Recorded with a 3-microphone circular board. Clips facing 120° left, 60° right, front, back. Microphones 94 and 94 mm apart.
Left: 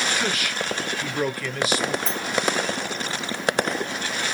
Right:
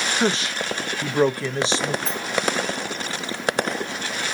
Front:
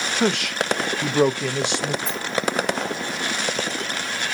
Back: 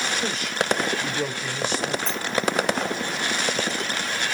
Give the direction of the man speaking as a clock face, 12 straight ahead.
12 o'clock.